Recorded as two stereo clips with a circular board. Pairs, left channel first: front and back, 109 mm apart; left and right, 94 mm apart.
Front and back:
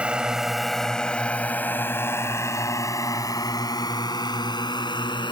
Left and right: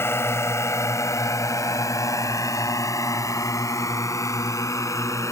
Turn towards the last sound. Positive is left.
turn(degrees=35)